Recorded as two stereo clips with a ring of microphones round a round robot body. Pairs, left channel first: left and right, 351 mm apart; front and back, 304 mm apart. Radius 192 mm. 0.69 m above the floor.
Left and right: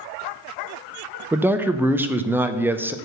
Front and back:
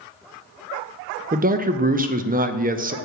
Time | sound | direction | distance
1.3 | a man speaking | 170° right | 0.6 m